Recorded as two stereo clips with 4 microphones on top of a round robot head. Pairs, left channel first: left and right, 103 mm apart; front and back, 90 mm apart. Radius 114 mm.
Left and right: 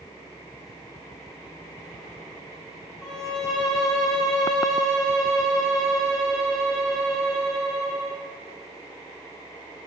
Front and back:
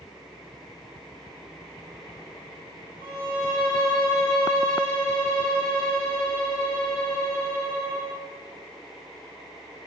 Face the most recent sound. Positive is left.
turn(degrees=45)